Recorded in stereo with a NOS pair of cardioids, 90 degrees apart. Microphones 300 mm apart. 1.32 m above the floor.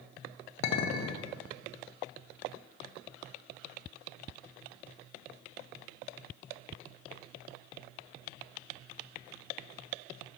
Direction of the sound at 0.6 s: 70° left.